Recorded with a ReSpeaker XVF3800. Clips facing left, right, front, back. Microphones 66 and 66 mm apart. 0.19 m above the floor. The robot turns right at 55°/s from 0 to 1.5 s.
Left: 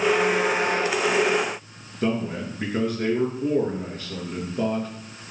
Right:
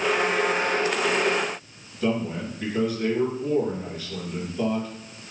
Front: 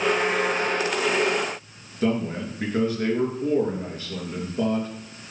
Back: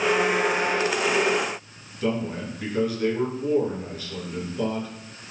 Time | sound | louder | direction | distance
2.0 | a man speaking | even, front 2 dB | 45° left | 3.5 m